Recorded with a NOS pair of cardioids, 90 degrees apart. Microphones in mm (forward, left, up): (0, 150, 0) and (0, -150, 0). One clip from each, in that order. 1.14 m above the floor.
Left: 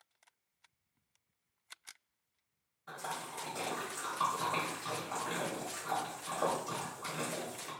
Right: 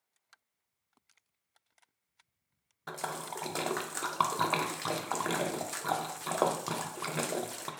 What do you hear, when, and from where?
2.9 s a splash: 65° right, 0.5 m